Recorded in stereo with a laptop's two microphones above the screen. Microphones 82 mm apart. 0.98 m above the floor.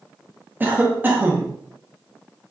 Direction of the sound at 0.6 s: 20° right (ahead or behind).